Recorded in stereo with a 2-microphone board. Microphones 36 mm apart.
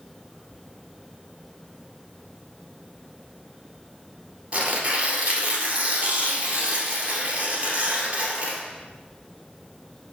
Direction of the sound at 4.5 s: 30° right (ahead or behind).